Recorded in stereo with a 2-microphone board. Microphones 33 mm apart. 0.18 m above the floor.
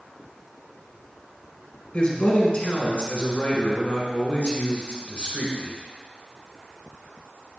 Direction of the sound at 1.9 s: 40° left (ahead or behind).